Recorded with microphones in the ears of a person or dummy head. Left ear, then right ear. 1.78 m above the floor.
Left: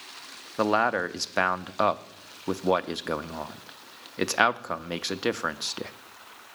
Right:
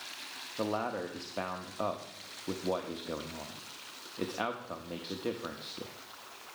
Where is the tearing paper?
I don't hear tearing paper.